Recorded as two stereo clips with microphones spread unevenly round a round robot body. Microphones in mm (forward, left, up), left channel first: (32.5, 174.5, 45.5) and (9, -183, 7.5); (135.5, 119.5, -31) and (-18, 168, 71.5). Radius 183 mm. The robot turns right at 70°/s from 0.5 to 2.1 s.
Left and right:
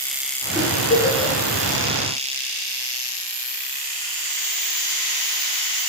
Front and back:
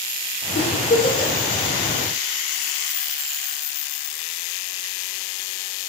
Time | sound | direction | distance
0.6 | a giggle | 15° right | 4.5 m